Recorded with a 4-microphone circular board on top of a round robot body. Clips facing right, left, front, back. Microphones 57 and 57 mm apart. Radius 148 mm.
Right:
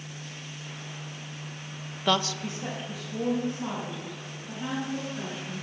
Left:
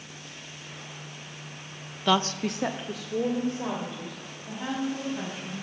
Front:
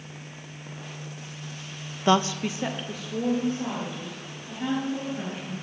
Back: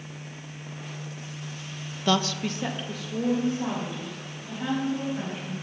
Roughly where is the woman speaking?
Ahead.